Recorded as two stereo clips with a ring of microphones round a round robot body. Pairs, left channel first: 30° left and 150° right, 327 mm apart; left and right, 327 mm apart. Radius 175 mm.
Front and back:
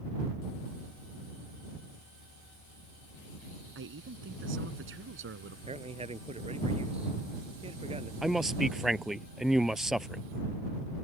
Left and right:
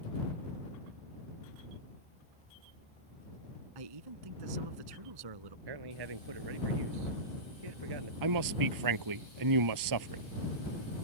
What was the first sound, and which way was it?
A man speaking, 95° right.